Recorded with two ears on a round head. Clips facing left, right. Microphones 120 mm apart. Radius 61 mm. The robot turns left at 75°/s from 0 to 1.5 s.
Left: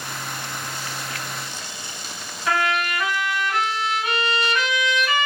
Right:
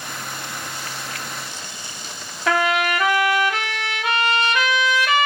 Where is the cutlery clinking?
No cutlery clinking in this recording.